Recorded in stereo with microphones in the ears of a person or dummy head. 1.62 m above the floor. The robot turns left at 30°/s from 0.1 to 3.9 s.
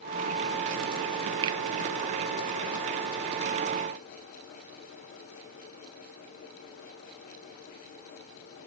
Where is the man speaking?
I don't hear a man speaking.